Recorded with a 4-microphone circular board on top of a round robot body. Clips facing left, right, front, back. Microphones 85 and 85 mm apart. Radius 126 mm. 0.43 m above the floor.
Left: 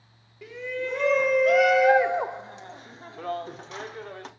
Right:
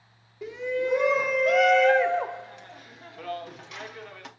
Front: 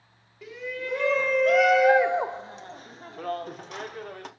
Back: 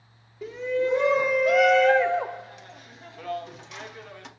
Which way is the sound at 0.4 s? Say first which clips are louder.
Right 4 dB, back 9 dB; 145° right.